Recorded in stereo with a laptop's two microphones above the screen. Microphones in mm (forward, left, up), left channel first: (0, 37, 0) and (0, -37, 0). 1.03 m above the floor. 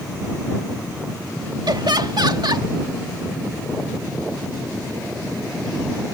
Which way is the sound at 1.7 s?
70° right (ahead or behind).